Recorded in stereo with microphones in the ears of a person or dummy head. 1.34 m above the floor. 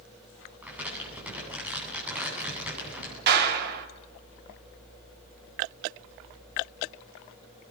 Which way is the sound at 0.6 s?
10° right (ahead or behind).